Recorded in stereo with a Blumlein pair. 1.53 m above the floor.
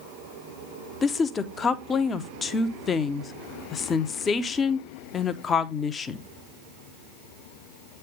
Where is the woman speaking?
20° left, 0.8 m.